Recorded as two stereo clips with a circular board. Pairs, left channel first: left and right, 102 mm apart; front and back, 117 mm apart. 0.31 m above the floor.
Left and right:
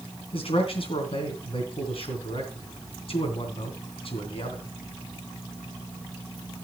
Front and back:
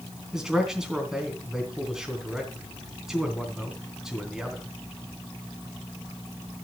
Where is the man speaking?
95° left, 3 m.